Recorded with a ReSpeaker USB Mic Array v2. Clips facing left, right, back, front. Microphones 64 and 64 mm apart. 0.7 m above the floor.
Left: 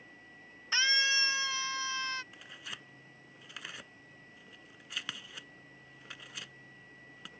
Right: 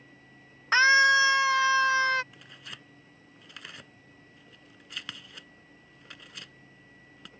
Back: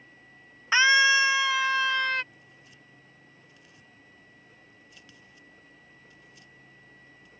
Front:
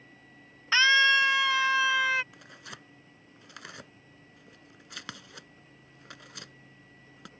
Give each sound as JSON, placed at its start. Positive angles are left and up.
{"t": 0.7, "sound": "a scream", "azimuth_deg": -110}
{"t": 2.3, "sound": "tearing paper", "azimuth_deg": 0}